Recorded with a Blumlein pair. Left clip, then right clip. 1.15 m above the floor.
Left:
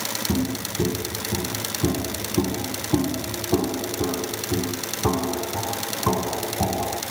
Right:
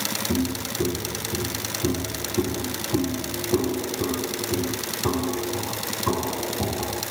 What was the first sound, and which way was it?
Footsteps, 70° left.